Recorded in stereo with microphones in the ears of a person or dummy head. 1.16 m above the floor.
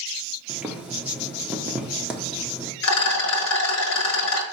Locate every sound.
0.5 s boiling: 5° right (ahead or behind), 0.6 m
2.8 s a rattle: 75° left (ahead or behind), 1.2 m